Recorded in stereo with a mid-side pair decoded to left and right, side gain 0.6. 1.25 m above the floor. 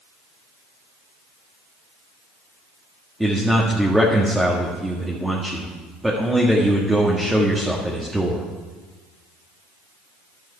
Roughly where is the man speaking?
Ahead.